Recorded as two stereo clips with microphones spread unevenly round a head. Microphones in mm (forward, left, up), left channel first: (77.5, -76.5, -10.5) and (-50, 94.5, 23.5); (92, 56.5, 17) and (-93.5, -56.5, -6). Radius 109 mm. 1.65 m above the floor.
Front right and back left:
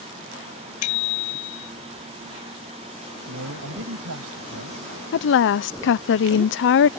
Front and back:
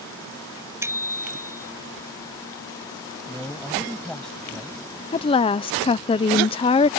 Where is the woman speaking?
25° right.